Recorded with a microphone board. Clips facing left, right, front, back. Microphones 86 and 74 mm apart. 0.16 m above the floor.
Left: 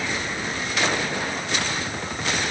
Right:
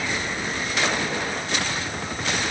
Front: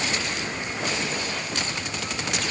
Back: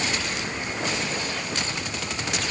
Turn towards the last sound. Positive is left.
No sound to turn to.